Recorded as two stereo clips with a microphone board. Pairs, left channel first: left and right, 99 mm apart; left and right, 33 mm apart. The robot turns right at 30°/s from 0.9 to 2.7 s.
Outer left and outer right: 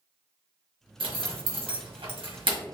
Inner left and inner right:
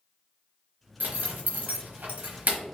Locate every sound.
1.0 s a zipper: 70° right (ahead or behind), 1.2 m; by 2.6 s 60° right (ahead or behind), 1.2 m